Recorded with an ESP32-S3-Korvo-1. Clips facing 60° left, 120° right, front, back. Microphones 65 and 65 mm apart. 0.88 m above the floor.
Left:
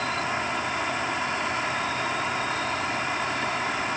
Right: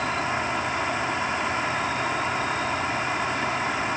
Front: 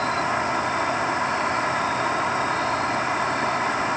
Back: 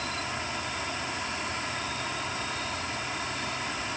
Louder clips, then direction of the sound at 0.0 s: Right 2 dB, front 11 dB; 40° right.